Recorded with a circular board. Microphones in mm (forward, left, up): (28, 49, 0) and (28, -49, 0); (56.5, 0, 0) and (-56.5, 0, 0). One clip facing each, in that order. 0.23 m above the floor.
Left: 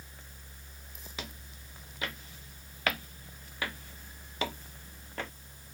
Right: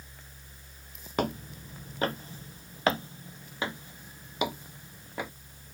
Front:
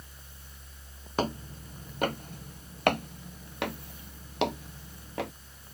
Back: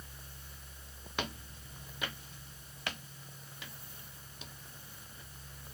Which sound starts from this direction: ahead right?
Footsteps, at 1.2 s.